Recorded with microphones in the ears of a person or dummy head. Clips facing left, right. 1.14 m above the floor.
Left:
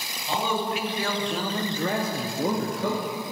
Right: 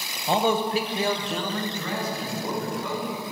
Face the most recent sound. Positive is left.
turn(degrees=55)  # may be behind; listen again after turning